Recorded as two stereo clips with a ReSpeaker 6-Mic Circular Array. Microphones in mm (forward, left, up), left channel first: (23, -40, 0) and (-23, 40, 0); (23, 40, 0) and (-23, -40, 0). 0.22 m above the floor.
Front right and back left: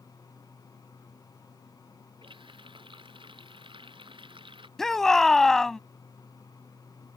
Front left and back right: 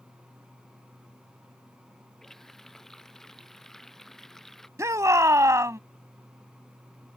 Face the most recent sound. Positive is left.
turn(degrees=-140)